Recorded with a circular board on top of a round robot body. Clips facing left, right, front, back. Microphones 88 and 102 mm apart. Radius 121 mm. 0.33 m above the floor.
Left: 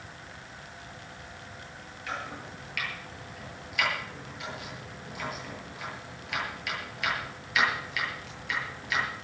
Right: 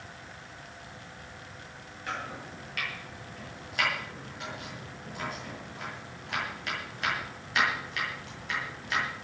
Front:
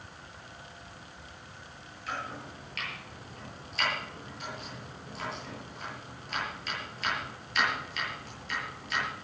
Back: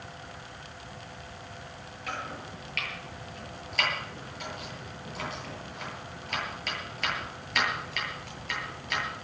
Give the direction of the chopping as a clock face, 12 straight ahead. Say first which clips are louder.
Even, even; 5 o'clock.